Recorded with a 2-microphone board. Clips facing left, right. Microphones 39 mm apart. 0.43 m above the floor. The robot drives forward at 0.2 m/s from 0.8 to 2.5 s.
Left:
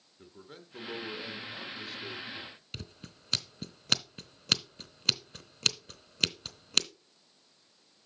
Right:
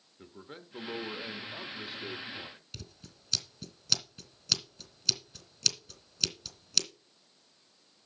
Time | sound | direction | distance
0.2 | a man speaking | 20° right (ahead or behind) | 1.0 m
2.7 | scissors | 50° left (ahead or behind) | 1.0 m